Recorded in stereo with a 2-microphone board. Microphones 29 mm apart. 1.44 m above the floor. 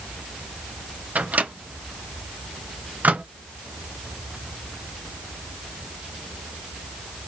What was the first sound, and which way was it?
A microwave, 60° right (ahead or behind).